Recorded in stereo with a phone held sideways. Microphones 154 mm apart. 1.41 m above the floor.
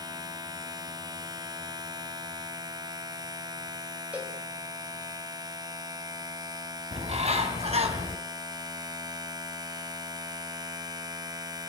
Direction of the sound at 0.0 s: 25° right (ahead or behind).